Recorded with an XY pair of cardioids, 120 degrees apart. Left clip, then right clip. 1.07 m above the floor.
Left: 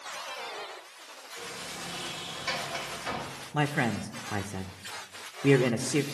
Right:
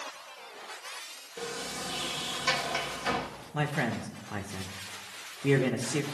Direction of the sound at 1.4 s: 45° right.